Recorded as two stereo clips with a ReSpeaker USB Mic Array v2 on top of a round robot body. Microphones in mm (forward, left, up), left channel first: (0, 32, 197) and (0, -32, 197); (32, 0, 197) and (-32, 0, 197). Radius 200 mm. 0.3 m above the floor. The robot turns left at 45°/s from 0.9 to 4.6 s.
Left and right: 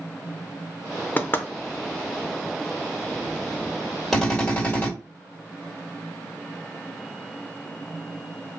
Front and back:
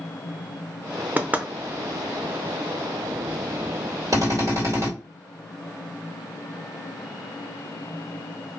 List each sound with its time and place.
1.2 s knocking: 135° left, 0.7 m; by 1.5 s 120° left, 0.7 m
4.1 s a drill: 175° left, 1.9 m; by 4.9 s 155° left, 1.9 m